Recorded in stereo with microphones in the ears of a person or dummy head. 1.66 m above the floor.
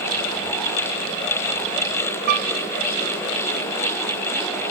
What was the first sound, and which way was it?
A piano, 50° right (ahead or behind).